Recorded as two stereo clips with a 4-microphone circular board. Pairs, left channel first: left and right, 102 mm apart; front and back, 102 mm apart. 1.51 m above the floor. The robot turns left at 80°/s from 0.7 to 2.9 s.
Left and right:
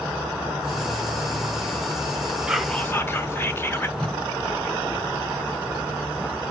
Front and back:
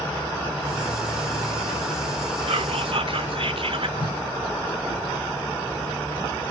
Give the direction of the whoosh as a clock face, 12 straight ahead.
12 o'clock.